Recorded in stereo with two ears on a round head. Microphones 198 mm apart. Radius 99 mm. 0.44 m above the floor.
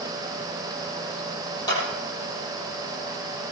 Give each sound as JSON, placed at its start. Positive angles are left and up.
{"t": 1.7, "sound": "a clap", "side_deg": 15, "distance_m": 9.0}